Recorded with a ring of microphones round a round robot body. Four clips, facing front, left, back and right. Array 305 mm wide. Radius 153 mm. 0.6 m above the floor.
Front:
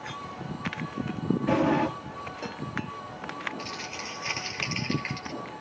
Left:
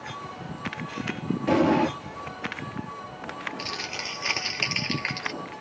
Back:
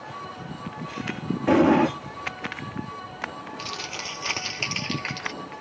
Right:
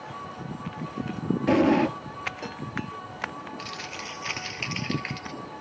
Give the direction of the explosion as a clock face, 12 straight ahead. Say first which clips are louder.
Even, back 7 dB; 5 o'clock.